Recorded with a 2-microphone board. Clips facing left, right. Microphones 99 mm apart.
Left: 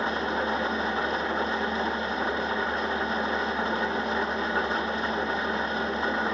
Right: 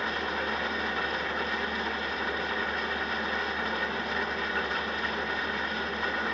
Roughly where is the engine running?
Left.